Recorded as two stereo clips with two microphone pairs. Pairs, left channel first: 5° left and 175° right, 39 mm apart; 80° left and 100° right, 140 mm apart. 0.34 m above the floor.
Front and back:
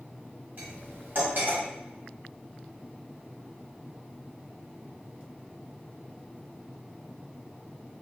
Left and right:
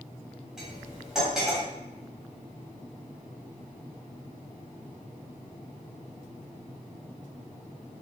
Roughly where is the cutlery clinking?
Behind.